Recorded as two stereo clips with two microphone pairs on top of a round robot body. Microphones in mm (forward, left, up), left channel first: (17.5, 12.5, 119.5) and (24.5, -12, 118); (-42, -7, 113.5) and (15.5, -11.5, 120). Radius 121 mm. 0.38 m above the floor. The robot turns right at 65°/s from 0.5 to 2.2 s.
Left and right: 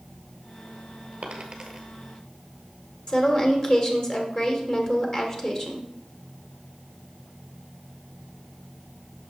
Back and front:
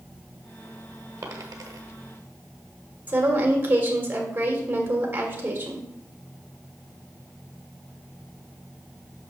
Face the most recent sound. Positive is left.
turn(degrees=50)